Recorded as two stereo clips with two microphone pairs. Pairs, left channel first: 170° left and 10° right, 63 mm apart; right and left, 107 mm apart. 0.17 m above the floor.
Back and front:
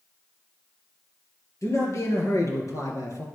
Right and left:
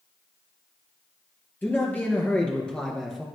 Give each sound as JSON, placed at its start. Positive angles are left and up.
{"t": 1.6, "sound": "a man speaking", "azimuth_deg": -160, "distance_m": 3.5}